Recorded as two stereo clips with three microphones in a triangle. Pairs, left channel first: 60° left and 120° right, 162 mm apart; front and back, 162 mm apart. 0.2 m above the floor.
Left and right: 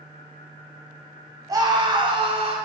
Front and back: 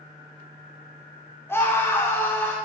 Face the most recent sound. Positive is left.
turn(degrees=-75)